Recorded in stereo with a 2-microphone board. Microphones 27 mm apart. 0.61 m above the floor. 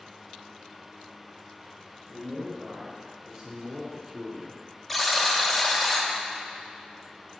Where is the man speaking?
35° right (ahead or behind), 2 m; by 4.6 s 5° right (ahead or behind), 0.7 m.